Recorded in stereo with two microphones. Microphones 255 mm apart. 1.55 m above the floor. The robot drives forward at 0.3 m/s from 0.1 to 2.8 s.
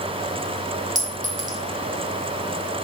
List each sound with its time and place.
0.9 s a clink: 30° right (ahead or behind), 0.7 m